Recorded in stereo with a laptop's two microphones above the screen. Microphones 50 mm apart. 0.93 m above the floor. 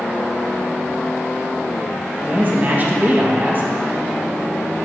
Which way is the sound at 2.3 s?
40° right (ahead or behind).